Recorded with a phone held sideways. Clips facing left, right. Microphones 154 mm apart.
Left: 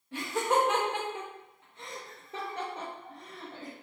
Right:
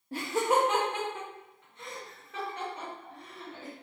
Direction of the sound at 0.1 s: 40° right (ahead or behind).